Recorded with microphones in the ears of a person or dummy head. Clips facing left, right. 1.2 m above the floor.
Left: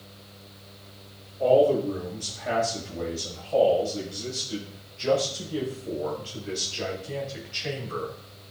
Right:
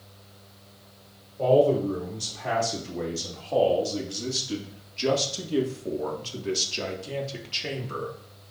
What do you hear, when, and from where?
1.4 s a man speaking: 65° right (ahead or behind), 3.5 m; by 8.1 s 40° right (ahead or behind), 2.5 m